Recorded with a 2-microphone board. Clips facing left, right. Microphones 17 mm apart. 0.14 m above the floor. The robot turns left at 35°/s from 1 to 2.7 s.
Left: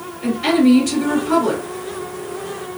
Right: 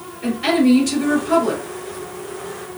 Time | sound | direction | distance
0.2 | a woman speaking | 5° right (ahead or behind) | 1.9 m